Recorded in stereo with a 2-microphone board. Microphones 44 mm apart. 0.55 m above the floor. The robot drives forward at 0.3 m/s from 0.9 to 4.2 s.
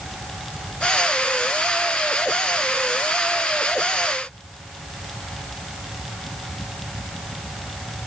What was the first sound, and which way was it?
Only background noise.